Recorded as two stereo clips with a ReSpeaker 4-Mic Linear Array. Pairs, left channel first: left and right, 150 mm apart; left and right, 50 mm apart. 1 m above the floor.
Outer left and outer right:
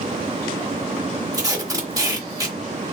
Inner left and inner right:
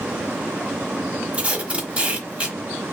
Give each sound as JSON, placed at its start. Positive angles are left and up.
{"t": 1.3, "sound": "tape being pulled", "side_deg": -25, "distance_m": 1.2}